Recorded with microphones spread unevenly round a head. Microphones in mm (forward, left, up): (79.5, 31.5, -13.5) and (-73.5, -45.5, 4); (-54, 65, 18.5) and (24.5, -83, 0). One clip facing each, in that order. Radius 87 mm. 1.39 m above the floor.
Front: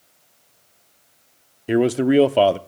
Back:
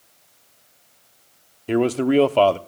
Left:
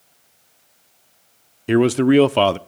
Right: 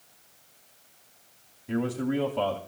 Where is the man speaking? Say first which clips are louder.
Front 2 dB, left 14 dB; 105° left, 0.7 m.